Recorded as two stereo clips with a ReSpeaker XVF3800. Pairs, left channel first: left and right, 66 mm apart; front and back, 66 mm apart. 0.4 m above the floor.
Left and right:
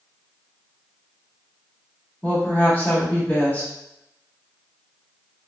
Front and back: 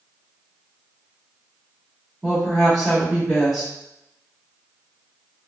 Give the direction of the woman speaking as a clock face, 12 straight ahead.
9 o'clock.